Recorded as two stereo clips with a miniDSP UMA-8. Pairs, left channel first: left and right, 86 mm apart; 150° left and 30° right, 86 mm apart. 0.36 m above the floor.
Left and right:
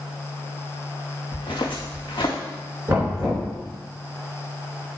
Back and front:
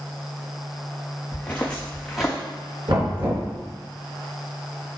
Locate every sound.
1.3 s footsteps: 80° left, 1.9 m; by 2.4 s 60° left, 1.9 m
2.9 s knocking: 30° right, 3 m